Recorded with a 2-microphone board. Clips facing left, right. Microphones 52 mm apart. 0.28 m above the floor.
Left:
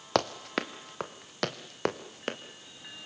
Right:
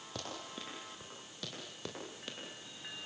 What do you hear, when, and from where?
0.1 s running footsteps: 80° left, 1.9 m; by 2.4 s 55° left (ahead or behind), 3 m